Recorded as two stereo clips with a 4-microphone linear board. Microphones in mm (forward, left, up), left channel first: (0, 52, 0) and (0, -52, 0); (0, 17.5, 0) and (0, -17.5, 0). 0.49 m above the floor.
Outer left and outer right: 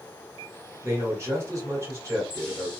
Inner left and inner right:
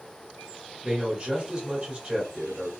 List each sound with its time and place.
0.8 s a man speaking: 30° right (ahead or behind), 1.7 m